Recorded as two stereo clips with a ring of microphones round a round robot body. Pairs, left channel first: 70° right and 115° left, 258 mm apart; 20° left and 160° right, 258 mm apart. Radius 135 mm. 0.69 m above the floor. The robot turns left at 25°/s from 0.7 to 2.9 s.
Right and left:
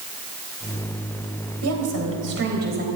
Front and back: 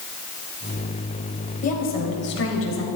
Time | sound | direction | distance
1.6 | a woman speaking | 85° left | 4 m